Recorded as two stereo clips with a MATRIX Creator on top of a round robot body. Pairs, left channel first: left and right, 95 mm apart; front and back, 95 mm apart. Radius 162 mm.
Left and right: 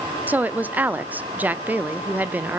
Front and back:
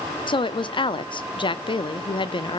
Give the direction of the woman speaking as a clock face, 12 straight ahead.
1 o'clock.